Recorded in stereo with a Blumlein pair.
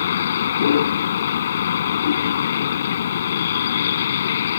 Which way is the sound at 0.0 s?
65° left.